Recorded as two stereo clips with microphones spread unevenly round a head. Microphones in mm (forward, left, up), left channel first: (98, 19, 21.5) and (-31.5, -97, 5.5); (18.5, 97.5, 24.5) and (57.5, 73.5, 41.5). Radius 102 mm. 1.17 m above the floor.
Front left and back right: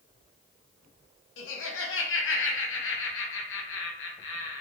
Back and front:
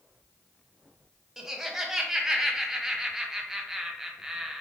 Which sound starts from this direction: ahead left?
Laughter, at 1.4 s.